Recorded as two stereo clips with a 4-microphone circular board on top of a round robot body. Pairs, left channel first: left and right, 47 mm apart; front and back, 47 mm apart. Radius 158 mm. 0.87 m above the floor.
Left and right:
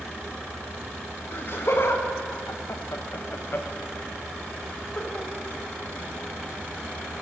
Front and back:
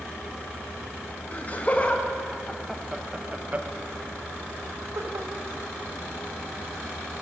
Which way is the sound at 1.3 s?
50° left.